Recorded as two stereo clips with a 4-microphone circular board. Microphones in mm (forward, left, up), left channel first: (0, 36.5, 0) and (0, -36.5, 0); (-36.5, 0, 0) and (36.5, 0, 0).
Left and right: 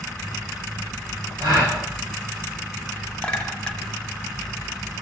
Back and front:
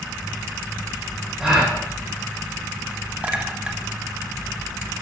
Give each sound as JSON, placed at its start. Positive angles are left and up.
{"t": 1.4, "sound": "a gasp", "azimuth_deg": -80, "distance_m": 6.5}
{"t": 3.2, "sound": "a clink", "azimuth_deg": 45, "distance_m": 1.0}